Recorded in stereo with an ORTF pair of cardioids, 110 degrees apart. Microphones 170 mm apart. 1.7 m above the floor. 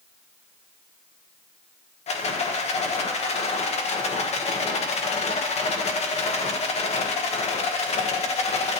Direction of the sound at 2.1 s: 40° left.